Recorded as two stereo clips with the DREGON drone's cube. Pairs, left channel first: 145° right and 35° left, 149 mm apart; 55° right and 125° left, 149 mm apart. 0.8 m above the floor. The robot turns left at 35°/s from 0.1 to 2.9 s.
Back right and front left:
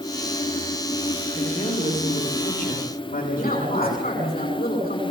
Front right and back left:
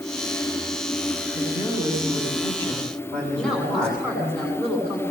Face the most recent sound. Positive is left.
turn(degrees=-140)